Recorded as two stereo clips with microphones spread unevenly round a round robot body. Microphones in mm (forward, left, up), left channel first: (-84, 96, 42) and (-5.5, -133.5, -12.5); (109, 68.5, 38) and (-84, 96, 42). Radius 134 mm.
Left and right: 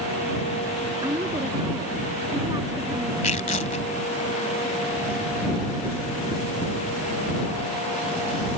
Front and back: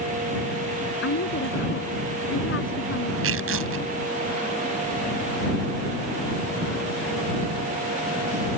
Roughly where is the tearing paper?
Behind.